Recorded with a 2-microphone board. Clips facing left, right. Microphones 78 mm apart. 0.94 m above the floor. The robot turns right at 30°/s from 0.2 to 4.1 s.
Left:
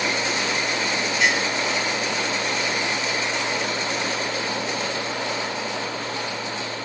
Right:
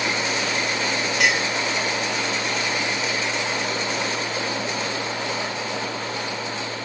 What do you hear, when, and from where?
1.2 s a clink: 80° right, 2.5 m; by 1.5 s 70° right (ahead or behind), 2.5 m